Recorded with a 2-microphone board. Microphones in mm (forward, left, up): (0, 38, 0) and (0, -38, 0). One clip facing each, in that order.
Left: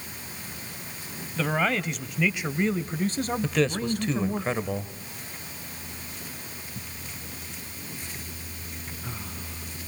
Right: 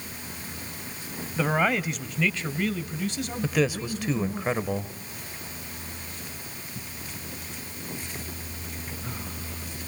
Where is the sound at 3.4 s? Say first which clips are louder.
Right 2 dB; 5° right (ahead or behind), 0.9 m.